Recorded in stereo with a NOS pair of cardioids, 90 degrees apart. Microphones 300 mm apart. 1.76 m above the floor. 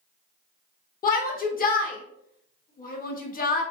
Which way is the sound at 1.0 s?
30° left.